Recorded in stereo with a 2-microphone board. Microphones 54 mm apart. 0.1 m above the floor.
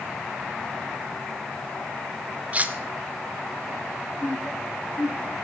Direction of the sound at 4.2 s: 35° left (ahead or behind).